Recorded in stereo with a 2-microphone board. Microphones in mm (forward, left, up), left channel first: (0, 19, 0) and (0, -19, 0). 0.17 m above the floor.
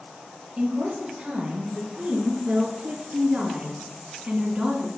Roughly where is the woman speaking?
Right.